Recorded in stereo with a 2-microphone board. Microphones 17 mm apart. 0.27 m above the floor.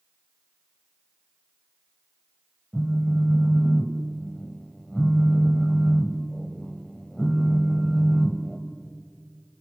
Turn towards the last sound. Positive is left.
turn(degrees=25)  # may be behind; listen again after turning